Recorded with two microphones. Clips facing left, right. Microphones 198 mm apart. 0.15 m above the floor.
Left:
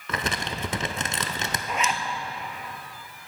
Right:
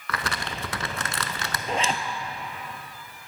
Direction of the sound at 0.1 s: 20° left (ahead or behind).